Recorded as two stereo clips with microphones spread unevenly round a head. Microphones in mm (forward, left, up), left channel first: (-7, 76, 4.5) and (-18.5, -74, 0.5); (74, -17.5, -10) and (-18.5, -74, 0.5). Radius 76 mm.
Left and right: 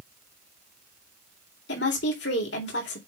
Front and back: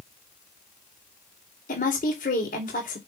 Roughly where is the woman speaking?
Ahead left.